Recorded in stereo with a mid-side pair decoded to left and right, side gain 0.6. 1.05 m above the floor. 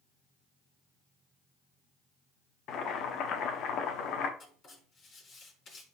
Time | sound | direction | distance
2.7 | boiling | 55° left | 1.6 m
4.4 | writing | 40° left | 5.5 m